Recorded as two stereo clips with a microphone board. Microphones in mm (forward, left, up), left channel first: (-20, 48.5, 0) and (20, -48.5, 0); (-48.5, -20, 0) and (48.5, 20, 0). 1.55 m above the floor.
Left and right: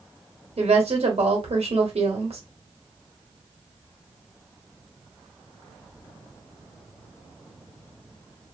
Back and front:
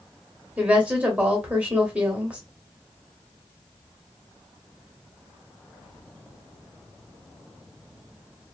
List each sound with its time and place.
0.6 s a woman speaking: 55° right, 1.1 m